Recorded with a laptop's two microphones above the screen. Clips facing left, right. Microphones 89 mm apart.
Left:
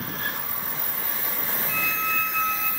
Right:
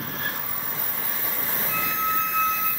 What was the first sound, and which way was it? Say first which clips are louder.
A squeak: right 3 dB; 50° right (ahead or behind).